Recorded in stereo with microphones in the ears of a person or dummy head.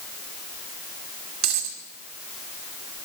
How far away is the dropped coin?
About 1.7 m.